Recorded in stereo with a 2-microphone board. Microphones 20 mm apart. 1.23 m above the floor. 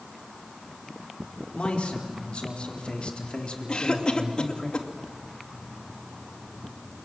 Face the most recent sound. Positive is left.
turn(degrees=50)  # may be behind; listen again after turning